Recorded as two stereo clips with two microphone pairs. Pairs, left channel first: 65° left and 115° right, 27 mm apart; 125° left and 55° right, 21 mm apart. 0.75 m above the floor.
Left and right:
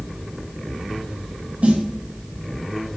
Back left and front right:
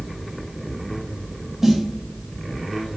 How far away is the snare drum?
About 0.5 m.